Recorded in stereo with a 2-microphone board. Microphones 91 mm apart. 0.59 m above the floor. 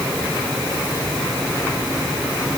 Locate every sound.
Only background noise.